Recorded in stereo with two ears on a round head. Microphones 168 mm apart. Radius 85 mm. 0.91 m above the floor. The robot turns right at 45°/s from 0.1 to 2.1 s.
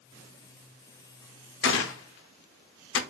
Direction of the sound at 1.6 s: 65° left (ahead or behind).